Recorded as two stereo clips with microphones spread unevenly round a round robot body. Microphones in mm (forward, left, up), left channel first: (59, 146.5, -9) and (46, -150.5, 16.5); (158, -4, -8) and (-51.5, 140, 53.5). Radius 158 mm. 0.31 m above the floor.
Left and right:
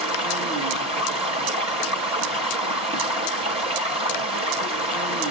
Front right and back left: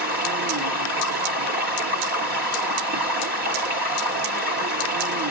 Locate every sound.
0.0 s running water: 160° right, 1.1 m